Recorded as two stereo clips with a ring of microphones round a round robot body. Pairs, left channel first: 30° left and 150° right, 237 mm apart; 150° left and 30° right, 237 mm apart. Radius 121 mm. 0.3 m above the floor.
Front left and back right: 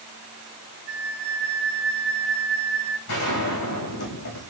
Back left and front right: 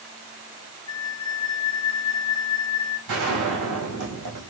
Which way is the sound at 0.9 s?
165° left.